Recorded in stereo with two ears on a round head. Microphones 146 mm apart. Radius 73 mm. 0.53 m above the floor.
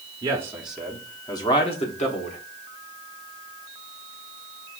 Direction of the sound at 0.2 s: 25° right (ahead or behind).